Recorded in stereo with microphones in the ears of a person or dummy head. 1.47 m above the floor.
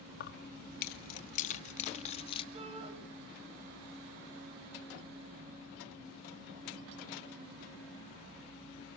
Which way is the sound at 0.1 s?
65° left (ahead or behind).